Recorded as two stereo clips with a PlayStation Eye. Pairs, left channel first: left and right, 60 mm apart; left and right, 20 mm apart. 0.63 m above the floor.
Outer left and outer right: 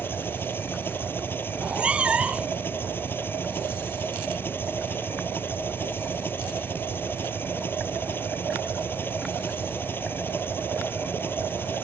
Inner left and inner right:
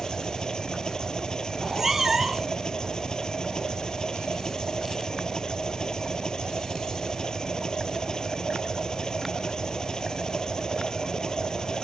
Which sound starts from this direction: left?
An engine running, at 0.0 s.